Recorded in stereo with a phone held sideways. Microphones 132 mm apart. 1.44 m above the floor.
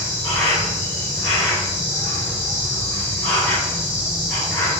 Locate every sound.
0.0 s an insect: 15° left (ahead or behind), 1.7 m